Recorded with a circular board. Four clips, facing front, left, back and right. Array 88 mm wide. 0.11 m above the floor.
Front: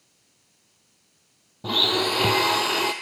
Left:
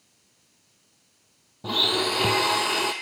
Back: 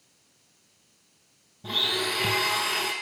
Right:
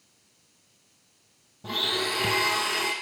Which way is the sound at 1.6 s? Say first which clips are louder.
Left 4 dB, front 6 dB; 30° left.